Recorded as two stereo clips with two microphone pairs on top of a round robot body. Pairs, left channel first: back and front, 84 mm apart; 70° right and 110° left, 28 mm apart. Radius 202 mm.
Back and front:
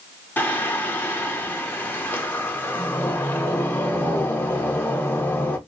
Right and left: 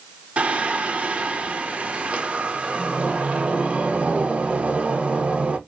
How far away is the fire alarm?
I don't hear a fire alarm.